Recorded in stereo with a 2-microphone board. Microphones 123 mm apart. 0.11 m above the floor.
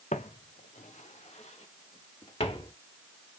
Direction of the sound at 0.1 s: 70° left (ahead or behind).